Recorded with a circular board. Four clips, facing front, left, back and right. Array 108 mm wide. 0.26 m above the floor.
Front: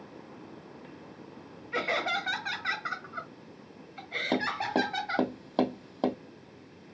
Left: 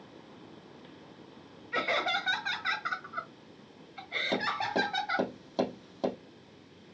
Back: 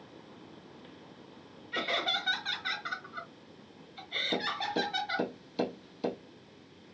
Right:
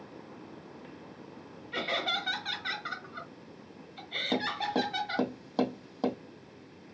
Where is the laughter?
40° left, 1.3 m.